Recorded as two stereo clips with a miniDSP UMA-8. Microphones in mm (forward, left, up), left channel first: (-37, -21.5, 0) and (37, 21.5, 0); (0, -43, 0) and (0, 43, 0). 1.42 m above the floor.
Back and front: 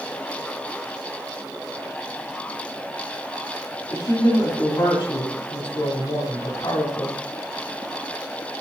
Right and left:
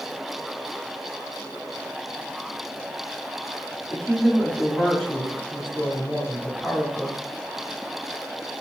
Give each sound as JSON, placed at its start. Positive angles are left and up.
{"t": 3.9, "sound": "a woman speaking", "azimuth_deg": -170, "distance_m": 3.0}